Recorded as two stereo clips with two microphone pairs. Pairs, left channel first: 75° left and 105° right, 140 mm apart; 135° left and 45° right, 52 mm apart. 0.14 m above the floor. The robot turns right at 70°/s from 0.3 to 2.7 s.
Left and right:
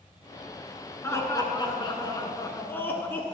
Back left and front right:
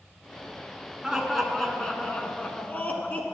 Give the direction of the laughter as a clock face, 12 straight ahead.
11 o'clock.